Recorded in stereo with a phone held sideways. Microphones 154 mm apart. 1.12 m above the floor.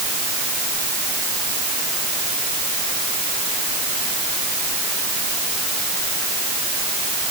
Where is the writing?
No writing in this recording.